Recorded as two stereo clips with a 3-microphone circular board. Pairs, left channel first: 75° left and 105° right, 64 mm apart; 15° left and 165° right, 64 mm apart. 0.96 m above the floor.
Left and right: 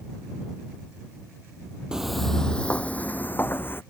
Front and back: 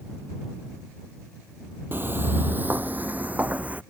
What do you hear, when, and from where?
1.9 s footsteps: 175° right; by 3.8 s 130° left